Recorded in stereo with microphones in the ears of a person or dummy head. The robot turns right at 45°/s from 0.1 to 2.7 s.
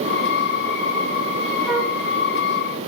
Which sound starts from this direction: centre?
A flute, at 1.7 s.